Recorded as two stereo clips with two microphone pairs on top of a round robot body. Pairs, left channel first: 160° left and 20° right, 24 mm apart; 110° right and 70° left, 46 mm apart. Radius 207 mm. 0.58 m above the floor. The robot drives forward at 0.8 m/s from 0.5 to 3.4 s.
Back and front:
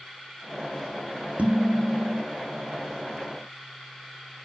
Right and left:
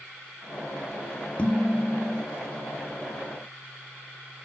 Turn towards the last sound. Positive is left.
turn(degrees=-145)